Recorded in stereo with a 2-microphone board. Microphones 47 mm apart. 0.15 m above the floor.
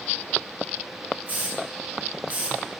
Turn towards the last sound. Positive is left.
turn(degrees=-35)  # may be behind; listen again after turning